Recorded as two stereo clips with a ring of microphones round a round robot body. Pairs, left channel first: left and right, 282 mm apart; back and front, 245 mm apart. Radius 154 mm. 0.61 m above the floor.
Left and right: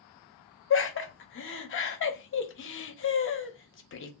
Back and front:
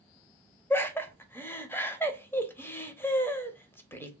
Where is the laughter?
100° left, 0.7 m.